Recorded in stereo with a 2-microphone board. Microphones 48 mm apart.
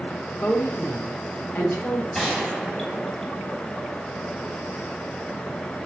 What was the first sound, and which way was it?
A woman speaking, 45° left (ahead or behind).